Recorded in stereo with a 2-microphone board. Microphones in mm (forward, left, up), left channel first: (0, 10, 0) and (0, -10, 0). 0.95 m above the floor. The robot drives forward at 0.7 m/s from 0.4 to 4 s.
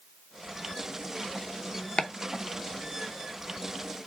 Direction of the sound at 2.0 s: 55° left (ahead or behind).